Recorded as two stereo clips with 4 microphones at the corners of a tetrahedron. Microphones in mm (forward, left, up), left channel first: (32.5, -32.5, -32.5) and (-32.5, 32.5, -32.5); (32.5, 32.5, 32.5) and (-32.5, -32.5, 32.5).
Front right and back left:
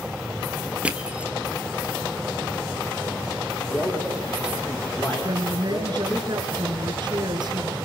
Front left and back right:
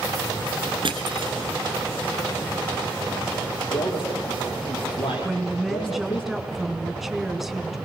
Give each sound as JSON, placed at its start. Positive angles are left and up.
{"t": 0.8, "sound": "crushing", "azimuth_deg": -150, "distance_m": 1.7}
{"t": 3.7, "sound": "a man speaking", "azimuth_deg": 20, "distance_m": 7.5}
{"t": 5.2, "sound": "a woman speaking", "azimuth_deg": 140, "distance_m": 2.5}